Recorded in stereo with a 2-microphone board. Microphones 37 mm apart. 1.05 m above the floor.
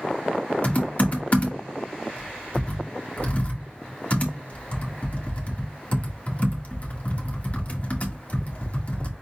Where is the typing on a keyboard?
40° left (ahead or behind), 1.6 m.